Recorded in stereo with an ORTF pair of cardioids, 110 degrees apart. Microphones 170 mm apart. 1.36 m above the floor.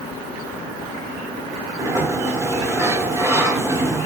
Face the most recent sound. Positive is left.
turn(degrees=-15)